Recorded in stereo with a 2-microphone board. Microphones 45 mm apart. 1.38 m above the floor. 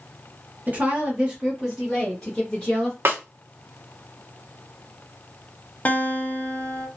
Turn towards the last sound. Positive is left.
turn(degrees=35)  # may be behind; listen again after turning